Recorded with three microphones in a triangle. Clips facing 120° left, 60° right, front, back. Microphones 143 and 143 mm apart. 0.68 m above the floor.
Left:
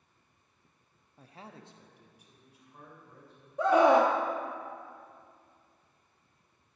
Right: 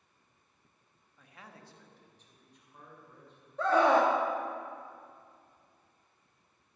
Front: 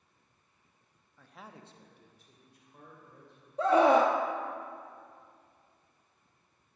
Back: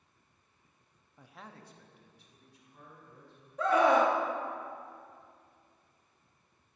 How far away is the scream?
About 0.7 m.